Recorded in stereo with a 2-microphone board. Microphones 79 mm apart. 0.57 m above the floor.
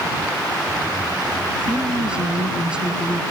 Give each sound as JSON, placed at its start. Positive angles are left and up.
{"t": 1.7, "sound": "a woman speaking", "side_deg": -10}